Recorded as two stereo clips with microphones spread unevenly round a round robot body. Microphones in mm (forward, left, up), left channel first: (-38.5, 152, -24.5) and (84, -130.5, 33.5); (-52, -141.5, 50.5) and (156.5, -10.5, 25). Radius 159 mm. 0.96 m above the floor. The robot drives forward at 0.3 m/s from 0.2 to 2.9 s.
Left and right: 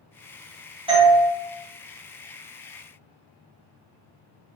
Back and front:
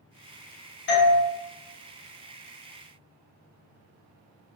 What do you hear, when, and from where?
0.9 s a doorbell: 145° right, 0.8 m; by 1.2 s 150° right, 0.8 m